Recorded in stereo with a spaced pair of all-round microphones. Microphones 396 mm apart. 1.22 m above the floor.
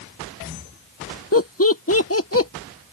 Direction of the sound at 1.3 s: 35° left (ahead or behind).